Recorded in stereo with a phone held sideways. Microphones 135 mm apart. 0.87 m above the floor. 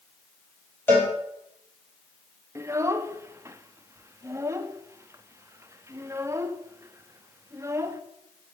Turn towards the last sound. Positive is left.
turn(degrees=-20)  # may be behind; listen again after turning